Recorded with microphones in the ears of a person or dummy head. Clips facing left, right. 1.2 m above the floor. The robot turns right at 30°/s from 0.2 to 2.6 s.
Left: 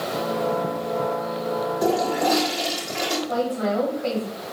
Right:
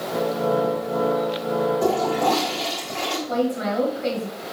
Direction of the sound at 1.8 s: 15° left (ahead or behind).